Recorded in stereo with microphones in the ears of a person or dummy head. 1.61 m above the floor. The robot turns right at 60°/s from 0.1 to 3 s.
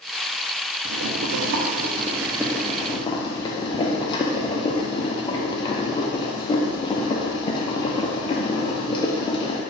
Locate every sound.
0.8 s boiling: 105° right, 0.6 m; by 9.6 s 25° left, 0.6 m